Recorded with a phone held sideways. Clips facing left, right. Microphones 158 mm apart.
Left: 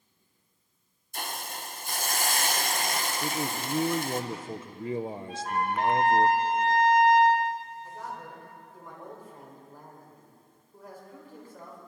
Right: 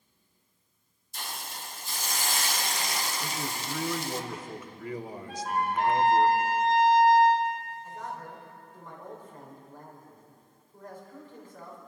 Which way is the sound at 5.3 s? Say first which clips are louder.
Right 2 dB; 5° right (ahead or behind).